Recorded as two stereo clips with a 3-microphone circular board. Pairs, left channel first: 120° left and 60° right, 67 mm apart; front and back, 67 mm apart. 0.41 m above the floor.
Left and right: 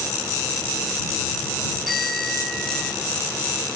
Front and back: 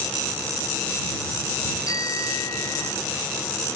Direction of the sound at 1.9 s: 35° left.